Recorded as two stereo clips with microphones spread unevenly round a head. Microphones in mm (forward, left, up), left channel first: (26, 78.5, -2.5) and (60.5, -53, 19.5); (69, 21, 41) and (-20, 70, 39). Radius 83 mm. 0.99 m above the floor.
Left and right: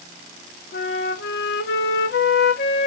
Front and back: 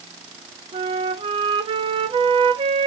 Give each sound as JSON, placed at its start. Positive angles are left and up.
{"t": 0.7, "sound": "a flute", "azimuth_deg": 110, "distance_m": 0.6}